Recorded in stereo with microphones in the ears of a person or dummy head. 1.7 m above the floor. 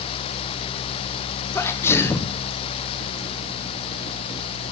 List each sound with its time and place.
1.6 s a sneeze: 15° left (ahead or behind), 0.5 m